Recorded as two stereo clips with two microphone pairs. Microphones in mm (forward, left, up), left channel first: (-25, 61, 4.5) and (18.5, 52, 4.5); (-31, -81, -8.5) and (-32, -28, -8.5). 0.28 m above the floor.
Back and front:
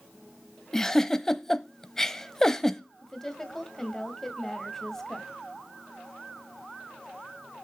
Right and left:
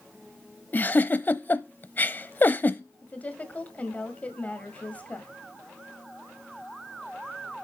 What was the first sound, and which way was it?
A giggle, 120° right.